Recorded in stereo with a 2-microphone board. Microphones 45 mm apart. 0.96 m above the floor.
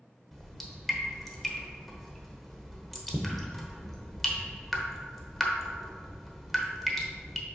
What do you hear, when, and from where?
0.3 s dripping: 5° left (ahead or behind), 1.0 m